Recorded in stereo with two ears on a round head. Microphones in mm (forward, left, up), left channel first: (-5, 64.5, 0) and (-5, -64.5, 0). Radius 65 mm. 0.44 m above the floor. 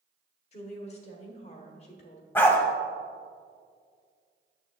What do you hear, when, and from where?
0.5 s a woman speaking: 45° left (ahead or behind), 1.3 m
2.4 s a dog barking: 15° left (ahead or behind), 1.0 m